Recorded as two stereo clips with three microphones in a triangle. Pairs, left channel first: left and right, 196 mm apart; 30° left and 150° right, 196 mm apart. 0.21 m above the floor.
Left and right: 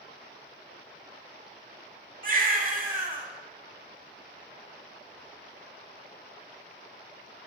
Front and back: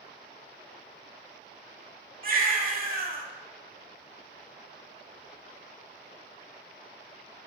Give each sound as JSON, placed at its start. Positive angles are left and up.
{"t": 2.2, "sound": "a baby crying", "azimuth_deg": -120, "distance_m": 0.6}